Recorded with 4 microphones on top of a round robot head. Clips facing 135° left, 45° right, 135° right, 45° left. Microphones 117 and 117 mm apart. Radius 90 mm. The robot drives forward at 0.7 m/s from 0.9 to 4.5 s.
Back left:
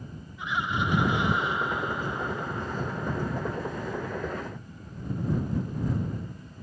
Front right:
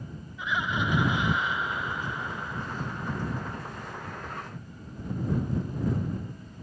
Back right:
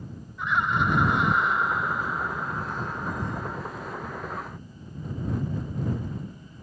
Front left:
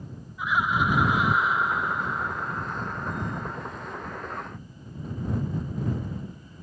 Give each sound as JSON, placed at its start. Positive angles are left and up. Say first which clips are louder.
{"t": 0.4, "sound": "laughter", "louder": "even, even", "azimuth_deg": -45}